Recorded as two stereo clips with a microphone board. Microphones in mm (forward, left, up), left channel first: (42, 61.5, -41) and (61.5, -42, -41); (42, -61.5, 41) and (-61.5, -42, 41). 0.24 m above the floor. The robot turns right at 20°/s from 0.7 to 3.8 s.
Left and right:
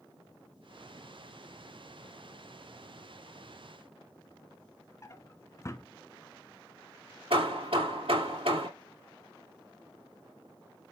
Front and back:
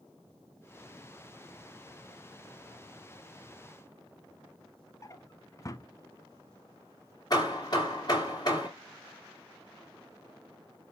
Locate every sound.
5.0 s a drawer: 40° left, 0.6 m
7.3 s hammering: 60° right, 2.5 m